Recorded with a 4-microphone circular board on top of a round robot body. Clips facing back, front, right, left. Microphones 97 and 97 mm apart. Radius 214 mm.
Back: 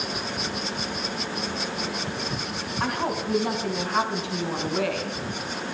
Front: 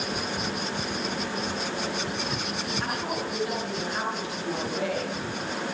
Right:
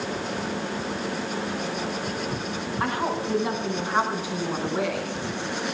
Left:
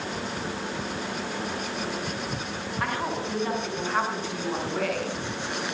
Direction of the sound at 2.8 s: 160° right.